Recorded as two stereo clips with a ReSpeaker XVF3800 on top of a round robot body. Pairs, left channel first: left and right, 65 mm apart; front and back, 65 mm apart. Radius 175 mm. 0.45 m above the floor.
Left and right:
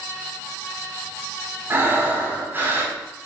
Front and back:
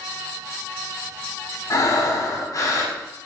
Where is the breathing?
35° right, 5.5 m.